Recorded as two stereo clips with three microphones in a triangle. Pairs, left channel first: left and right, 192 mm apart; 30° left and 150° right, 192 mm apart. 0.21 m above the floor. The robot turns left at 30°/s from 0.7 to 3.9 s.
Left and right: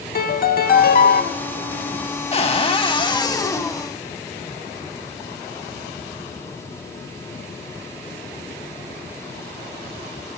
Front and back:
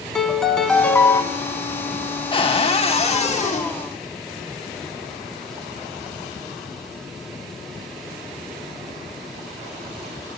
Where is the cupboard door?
70° left, 0.8 m; by 3.7 s 25° left, 0.8 m.